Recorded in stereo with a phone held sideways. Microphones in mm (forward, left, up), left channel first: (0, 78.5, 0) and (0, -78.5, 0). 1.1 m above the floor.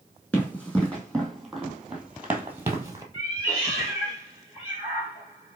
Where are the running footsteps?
10° left (ahead or behind), 1.9 m; by 3.0 s 20° right (ahead or behind), 1.1 m.